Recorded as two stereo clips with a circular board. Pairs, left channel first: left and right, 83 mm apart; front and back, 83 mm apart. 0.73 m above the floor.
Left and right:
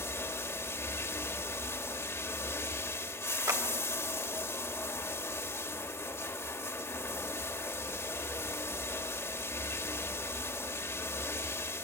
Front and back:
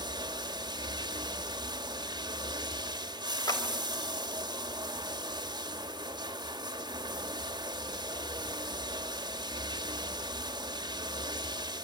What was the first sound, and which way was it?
Running water, 150° left.